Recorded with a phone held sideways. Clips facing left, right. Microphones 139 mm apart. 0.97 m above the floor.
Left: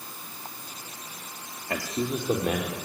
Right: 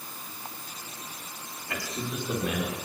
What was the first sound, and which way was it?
A man speaking, 40° left (ahead or behind).